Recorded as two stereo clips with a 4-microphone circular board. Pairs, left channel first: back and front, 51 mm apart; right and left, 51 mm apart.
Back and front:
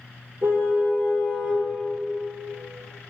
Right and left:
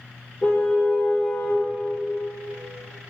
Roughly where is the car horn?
Ahead right.